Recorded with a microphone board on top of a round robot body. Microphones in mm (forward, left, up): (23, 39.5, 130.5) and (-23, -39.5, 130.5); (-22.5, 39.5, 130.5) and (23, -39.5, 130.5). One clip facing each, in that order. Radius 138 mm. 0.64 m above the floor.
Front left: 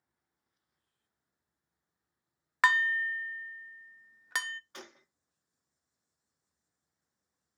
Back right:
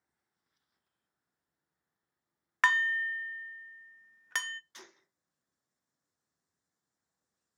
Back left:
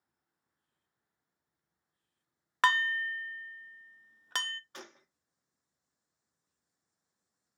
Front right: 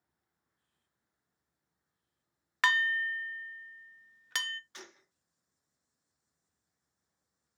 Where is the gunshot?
85° left, 1.0 m.